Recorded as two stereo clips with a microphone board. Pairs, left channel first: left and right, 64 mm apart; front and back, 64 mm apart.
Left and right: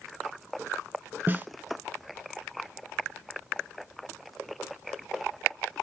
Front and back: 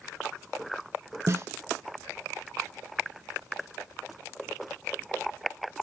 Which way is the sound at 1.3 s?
145° right.